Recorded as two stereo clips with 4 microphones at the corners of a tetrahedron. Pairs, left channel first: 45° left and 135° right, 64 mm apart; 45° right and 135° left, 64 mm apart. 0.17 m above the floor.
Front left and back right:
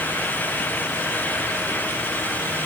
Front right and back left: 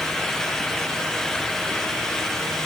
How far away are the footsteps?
No footsteps in this recording.